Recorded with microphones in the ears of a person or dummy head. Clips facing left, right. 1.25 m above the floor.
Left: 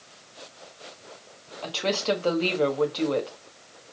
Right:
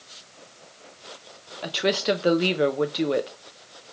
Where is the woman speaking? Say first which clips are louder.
Right 3 dB; 20° right (ahead or behind), 0.7 m.